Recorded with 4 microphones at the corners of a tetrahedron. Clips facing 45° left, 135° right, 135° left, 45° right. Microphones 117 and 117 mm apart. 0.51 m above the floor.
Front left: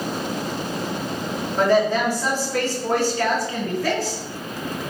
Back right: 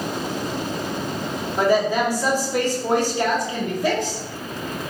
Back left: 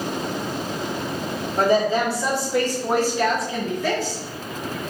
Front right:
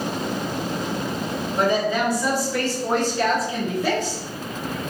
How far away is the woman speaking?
About 1.4 m.